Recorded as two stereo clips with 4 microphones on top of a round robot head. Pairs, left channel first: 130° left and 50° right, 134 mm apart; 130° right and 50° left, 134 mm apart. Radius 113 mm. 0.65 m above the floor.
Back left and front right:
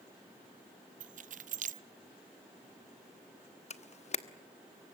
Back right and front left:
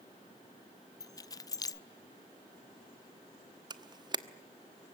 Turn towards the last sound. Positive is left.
turn(degrees=105)